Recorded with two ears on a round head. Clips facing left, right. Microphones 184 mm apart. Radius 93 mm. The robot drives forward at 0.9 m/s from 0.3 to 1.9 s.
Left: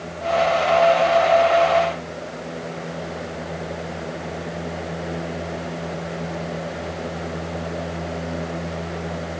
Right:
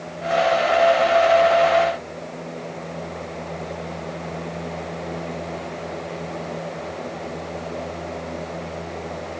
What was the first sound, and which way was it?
Only background noise.